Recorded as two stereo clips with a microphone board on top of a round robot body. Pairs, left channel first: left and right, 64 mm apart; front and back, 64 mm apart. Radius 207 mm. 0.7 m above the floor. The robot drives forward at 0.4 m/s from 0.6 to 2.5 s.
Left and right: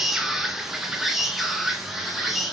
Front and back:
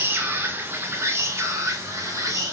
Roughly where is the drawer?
No drawer in this recording.